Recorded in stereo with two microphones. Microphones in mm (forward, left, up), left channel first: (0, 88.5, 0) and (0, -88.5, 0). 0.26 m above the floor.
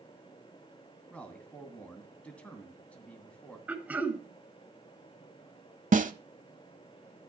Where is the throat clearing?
10° right (ahead or behind), 1.5 m.